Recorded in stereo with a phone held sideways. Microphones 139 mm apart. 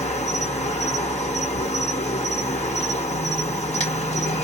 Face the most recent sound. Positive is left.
turn(degrees=55)  # may be behind; listen again after turning